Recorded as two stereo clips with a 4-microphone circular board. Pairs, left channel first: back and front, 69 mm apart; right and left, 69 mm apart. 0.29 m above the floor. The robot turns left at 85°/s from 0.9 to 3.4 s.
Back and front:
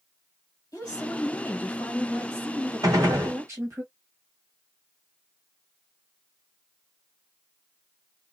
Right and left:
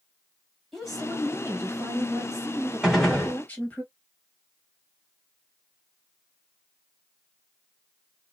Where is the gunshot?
10° left, 1.4 m; by 3.4 s 35° right, 1.4 m.